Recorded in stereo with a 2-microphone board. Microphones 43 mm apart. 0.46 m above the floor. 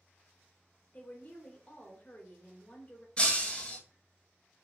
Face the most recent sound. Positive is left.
turn(degrees=25)  # may be behind; listen again after turning